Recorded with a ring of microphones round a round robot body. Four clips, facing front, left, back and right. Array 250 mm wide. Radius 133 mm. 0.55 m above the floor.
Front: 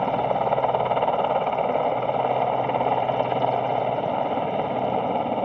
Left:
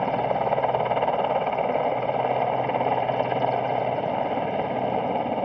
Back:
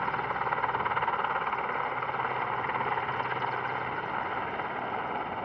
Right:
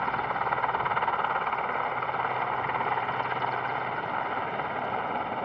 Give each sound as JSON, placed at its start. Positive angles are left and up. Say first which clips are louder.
{"t": 0.0, "sound": "a helicopter", "louder": "left 5 dB, front 8 dB", "azimuth_deg": 40}